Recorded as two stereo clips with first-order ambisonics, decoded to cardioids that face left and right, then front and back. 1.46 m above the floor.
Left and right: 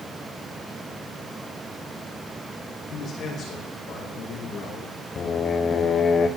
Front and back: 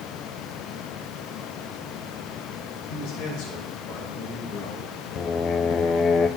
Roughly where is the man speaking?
Ahead left.